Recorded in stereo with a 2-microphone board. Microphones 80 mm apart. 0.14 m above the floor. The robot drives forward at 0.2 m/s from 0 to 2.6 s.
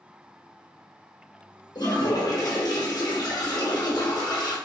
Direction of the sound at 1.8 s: 60° left (ahead or behind).